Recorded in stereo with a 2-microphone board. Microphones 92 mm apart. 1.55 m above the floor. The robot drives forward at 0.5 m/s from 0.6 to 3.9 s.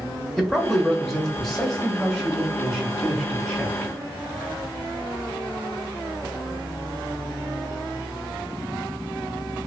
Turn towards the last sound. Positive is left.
turn(degrees=0)  # may be behind; listen again after turning